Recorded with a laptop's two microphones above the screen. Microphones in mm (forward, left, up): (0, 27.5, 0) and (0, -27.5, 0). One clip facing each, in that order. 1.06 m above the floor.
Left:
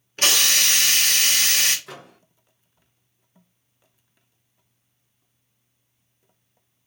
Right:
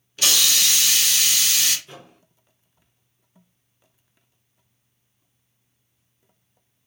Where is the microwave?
80° left, 0.5 m.